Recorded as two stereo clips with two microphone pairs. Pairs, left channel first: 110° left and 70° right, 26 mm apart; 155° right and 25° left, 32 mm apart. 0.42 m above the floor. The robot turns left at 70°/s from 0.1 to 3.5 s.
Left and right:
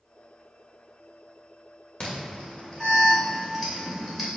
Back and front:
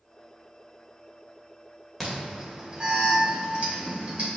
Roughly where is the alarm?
Behind left.